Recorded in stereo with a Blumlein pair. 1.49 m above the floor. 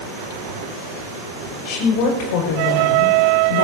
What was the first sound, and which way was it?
A woman speaking, 40° left.